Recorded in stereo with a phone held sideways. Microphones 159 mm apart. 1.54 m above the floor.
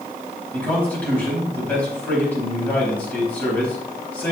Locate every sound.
0.5 s a man speaking: 10° left (ahead or behind), 4 m